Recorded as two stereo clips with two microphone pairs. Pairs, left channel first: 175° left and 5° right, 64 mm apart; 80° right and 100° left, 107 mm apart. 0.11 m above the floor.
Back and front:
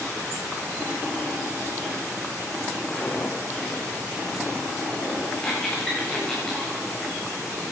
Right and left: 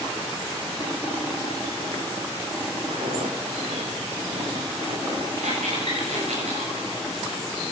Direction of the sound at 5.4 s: 95° left.